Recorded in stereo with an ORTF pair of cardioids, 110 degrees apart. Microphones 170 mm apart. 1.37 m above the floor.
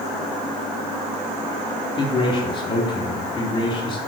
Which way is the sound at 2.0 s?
30° left.